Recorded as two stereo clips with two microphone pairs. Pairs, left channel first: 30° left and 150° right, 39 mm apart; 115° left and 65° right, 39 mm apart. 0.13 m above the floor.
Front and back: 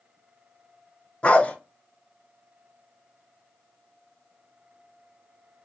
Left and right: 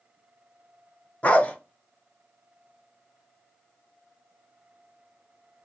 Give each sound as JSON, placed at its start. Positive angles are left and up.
{"t": 1.2, "sound": "a dog barking", "azimuth_deg": 75, "distance_m": 0.6}